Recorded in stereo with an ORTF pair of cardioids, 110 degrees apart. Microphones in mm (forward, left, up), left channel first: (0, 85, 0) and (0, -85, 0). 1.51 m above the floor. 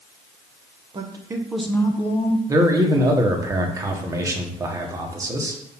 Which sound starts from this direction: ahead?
A man speaking, at 2.5 s.